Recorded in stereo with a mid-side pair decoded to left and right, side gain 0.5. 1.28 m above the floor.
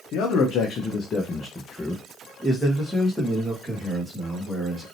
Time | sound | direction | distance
0.1 | a man speaking | 70° left | 1.2 m